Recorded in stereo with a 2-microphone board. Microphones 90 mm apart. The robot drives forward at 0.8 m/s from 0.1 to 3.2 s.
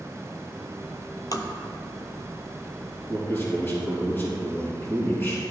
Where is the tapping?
45° left (ahead or behind), 0.7 m; by 1.5 s 40° left (ahead or behind), 0.8 m.